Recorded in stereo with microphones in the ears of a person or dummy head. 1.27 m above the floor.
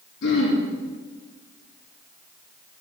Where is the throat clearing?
75° left (ahead or behind), 5.5 m.